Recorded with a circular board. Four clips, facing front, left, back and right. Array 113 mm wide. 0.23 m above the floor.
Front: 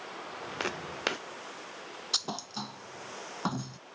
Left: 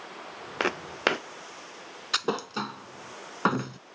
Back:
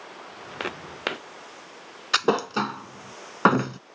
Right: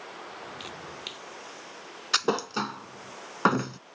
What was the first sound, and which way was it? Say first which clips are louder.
Footsteps: left 13 dB, back 3 dB; 100° left.